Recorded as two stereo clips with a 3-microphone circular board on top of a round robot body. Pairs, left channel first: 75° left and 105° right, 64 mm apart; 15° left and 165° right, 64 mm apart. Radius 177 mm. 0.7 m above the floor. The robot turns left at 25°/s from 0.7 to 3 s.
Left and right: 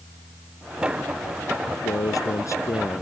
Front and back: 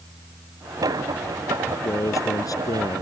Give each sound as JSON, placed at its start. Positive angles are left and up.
{"t": 1.7, "sound": "a man speaking", "azimuth_deg": 60}